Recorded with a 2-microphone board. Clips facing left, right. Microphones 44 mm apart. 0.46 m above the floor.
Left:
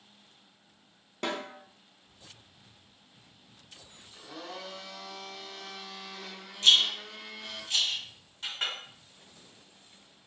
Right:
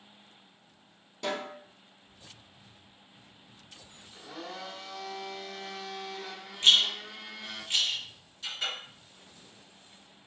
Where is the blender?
20° right (ahead or behind), 1.1 m.